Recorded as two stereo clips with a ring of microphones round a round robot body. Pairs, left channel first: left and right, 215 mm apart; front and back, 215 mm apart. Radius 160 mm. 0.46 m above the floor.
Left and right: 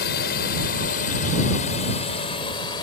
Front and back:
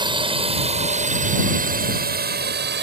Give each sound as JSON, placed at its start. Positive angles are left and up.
{"t": 0.0, "sound": "a drone", "azimuth_deg": 120}